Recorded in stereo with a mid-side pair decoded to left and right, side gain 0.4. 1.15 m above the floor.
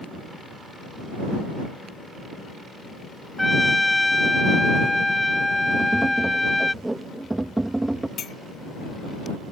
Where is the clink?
60° left.